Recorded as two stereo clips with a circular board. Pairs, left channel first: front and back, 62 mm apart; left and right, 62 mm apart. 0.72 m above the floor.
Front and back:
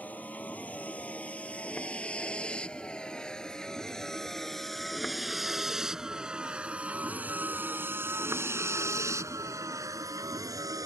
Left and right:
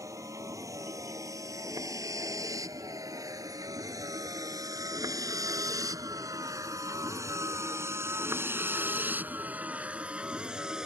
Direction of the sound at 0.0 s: 65° right.